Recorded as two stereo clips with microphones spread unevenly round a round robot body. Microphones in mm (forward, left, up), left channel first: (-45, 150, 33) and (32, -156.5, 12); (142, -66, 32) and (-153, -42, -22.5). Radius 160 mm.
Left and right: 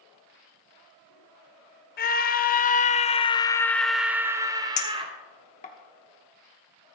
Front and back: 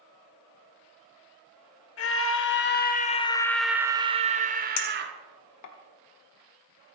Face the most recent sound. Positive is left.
turn(degrees=35)